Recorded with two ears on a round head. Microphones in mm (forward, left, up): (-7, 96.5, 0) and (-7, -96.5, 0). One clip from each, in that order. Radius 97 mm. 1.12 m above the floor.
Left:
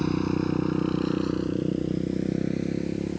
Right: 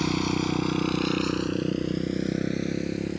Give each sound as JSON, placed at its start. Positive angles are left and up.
{"t": 0.0, "sound": "a motorcycle", "side_deg": -70}